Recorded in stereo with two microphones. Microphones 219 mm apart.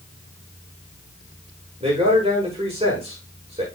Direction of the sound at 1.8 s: 30° right (ahead or behind).